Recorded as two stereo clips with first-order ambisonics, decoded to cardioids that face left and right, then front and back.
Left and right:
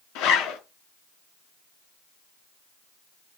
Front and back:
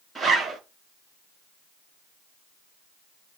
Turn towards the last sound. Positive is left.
turn(degrees=100)